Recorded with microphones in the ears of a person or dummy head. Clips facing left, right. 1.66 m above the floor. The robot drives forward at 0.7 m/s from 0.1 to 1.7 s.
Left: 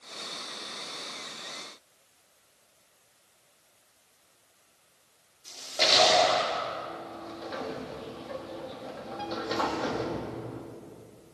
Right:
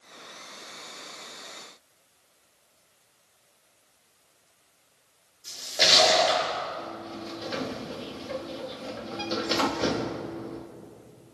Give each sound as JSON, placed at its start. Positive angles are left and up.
{"t": 5.5, "sound": "a splash", "side_deg": -10, "distance_m": 5.0}
{"t": 6.8, "sound": "a sliding door", "side_deg": -40, "distance_m": 2.5}